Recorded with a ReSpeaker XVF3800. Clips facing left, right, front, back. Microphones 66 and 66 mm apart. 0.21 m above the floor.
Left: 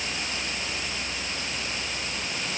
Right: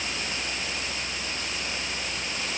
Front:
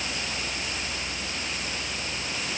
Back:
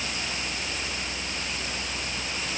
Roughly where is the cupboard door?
I don't hear a cupboard door.